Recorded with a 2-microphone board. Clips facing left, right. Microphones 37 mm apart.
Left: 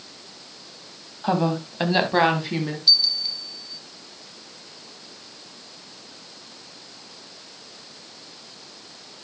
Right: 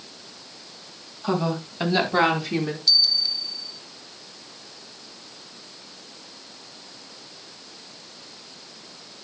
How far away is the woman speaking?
About 3 m.